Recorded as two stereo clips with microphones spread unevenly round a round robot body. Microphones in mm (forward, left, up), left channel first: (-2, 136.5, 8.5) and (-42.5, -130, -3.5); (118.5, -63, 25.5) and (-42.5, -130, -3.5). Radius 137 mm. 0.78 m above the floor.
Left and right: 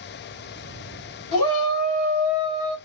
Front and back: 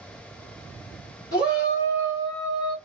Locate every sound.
1.3 s a shout: 75° left, 2.5 m; by 2.8 s 105° left, 2 m